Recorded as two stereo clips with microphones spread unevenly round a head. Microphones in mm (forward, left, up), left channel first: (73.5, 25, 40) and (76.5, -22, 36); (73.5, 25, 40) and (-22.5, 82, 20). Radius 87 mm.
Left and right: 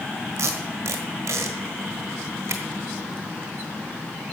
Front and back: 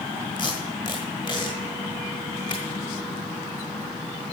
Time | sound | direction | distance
0.4 | tape being pulled | 85° right | 1.4 m